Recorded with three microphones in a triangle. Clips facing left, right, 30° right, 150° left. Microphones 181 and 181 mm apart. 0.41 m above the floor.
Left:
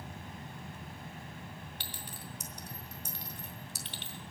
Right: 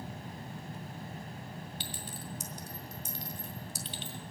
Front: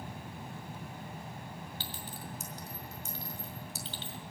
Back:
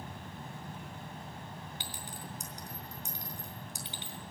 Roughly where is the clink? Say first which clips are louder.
Right 4 dB, front 1 dB; left.